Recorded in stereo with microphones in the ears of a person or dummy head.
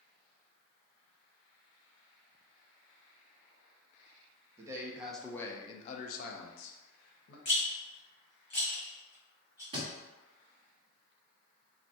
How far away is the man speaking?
About 0.7 m.